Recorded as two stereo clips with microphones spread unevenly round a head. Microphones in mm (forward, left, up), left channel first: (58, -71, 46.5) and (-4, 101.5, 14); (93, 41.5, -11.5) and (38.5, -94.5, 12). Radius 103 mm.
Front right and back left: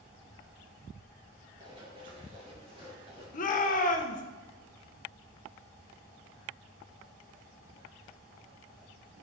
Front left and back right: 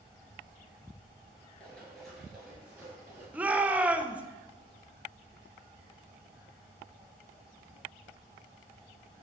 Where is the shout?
35° right, 0.8 m.